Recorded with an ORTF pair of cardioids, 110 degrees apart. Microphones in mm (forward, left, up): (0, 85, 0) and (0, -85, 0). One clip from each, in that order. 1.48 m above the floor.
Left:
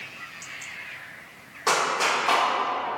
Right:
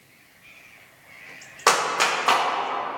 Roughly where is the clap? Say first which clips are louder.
Right 2 dB; ahead right.